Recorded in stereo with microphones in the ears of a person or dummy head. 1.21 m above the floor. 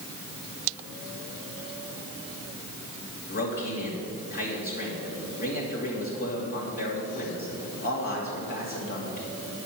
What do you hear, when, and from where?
3.3 s a man speaking: 50° left (ahead or behind), 2.5 m